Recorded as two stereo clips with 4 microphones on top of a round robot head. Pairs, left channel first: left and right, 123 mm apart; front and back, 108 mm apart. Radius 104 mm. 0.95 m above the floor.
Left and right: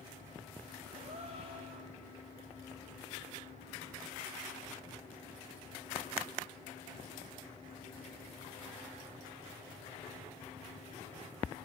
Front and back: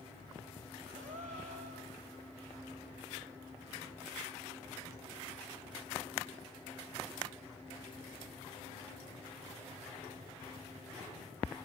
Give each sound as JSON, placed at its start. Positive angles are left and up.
{"t": 0.9, "sound": "a gasp", "azimuth_deg": -145, "distance_m": 2.5}